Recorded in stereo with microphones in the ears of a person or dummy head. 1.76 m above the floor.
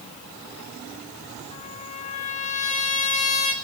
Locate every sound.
1.5 s a trumpet: 35° left (ahead or behind), 1.9 m